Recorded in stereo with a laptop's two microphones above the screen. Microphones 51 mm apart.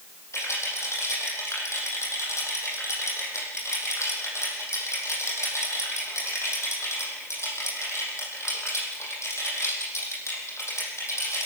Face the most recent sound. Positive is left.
turn(degrees=65)  # may be behind; listen again after turning